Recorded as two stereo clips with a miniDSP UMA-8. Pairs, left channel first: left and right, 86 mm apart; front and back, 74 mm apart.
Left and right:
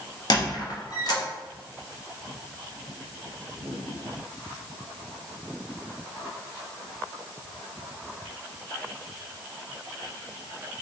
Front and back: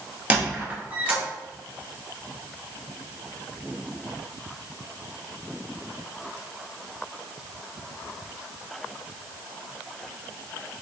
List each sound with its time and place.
0.3 s a squeak: 110° left, 1.0 m